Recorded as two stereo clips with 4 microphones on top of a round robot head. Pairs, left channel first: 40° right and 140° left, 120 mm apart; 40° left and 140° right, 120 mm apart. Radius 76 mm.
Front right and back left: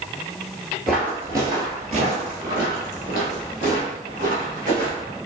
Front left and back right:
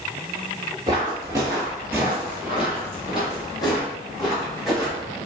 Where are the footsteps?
135° right, 0.8 m; by 5.2 s 125° left, 2.5 m.